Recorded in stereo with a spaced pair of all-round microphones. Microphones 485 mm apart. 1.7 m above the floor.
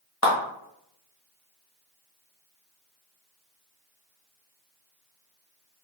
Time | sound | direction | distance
0.2 | a clap | 35° left (ahead or behind) | 1.0 m